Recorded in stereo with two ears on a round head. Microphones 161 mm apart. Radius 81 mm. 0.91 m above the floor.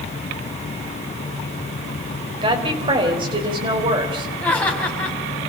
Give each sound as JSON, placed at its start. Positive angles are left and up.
{"t": 2.4, "sound": "a woman speaking", "side_deg": -30, "distance_m": 4.0}
{"t": 4.4, "sound": "laughter", "side_deg": 5, "distance_m": 5.5}